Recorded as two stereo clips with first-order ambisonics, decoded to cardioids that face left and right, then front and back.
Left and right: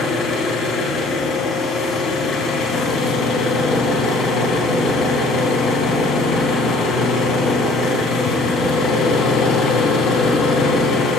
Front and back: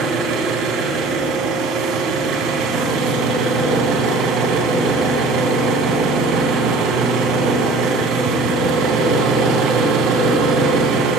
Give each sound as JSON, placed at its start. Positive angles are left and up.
{"t": 0.0, "sound": "an engine running", "azimuth_deg": 145, "distance_m": 2.5}